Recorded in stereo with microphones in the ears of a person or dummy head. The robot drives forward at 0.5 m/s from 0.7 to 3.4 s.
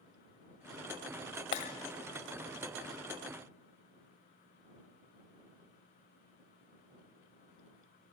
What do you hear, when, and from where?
1.5 s breaking glass: 35° left (ahead or behind), 1.5 m; by 1.7 s 40° left (ahead or behind), 1.5 m